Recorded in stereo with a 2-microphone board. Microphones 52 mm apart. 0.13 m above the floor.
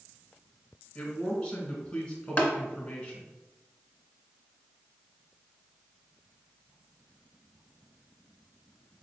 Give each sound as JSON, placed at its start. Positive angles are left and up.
{"t": 0.9, "sound": "a man speaking", "side_deg": 20, "distance_m": 1.2}
{"t": 2.4, "sound": "tapping", "side_deg": 25, "distance_m": 0.9}